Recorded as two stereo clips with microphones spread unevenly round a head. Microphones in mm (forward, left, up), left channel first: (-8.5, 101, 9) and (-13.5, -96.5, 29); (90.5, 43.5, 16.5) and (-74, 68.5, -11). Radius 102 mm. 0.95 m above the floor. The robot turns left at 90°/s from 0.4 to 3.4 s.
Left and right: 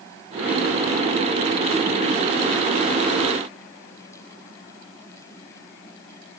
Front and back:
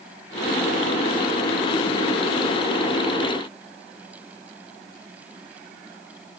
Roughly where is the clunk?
I don't hear a clunk.